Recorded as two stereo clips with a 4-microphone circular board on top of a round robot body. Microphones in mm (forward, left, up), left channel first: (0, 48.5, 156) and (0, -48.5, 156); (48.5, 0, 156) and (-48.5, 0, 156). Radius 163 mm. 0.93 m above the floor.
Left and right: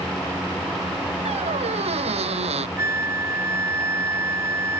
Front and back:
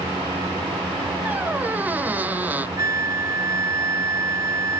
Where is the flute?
140° right.